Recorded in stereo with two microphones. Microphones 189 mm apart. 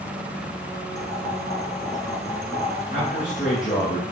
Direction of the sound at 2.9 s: 45° left (ahead or behind).